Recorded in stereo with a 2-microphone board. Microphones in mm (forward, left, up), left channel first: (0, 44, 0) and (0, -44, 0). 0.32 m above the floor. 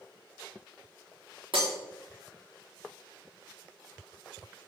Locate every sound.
1.5 s breaking glass: 85° right, 4.5 m